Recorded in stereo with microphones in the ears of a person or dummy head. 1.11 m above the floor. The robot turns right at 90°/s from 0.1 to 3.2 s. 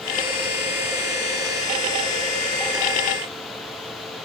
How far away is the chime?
I don't hear a chime.